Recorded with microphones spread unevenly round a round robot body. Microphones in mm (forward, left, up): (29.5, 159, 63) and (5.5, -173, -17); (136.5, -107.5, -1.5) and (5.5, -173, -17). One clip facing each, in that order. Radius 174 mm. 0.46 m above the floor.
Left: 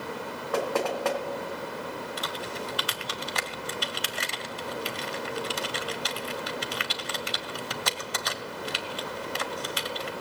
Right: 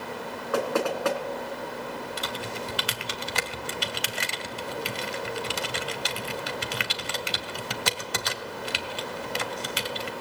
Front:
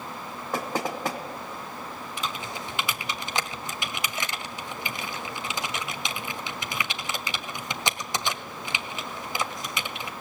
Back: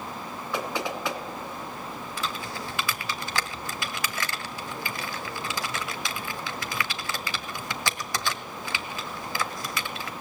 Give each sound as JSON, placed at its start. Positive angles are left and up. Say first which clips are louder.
{"t": 0.5, "sound": "knocking", "louder": "right 2 dB, front 1 dB", "azimuth_deg": -20, "distance_m": 3.0}
{"t": 2.2, "sound": "typing on a keyboard", "louder": "right 1 dB, even", "azimuth_deg": -45, "distance_m": 1.7}